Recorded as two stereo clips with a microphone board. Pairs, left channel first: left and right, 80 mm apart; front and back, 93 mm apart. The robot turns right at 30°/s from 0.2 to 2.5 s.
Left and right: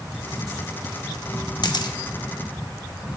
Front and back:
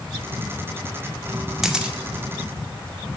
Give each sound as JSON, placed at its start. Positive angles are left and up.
{"t": 1.6, "sound": "a camera shutter", "azimuth_deg": 95, "distance_m": 0.8}